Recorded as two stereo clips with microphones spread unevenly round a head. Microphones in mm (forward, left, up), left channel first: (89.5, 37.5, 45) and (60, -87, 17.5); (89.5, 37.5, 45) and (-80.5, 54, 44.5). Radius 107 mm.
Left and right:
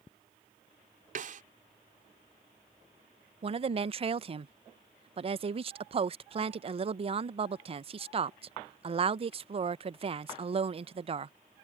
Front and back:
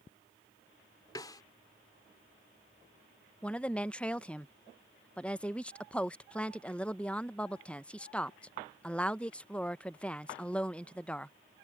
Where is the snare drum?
80° right.